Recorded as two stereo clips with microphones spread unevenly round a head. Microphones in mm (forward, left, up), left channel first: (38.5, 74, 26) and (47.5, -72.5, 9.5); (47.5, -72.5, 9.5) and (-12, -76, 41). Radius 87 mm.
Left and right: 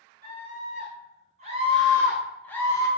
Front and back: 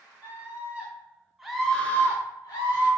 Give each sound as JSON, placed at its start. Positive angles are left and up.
{"t": 0.2, "sound": "a scream", "azimuth_deg": -130, "distance_m": 1.2}